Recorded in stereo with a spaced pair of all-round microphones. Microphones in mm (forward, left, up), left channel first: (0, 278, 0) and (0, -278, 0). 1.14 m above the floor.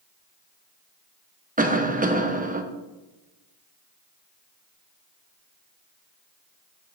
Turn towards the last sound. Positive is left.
turn(degrees=-15)  # may be behind; listen again after turning